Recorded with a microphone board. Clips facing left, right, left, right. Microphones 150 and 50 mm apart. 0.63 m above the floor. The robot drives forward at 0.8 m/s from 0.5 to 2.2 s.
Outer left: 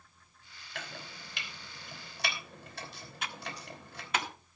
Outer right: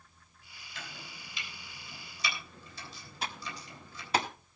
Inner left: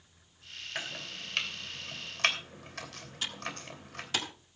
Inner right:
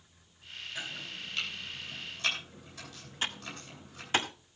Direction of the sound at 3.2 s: 35° right (ahead or behind).